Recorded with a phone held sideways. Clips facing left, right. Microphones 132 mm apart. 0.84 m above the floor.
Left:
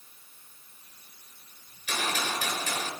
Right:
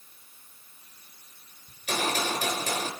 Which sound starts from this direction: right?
A gunshot, at 1.7 s.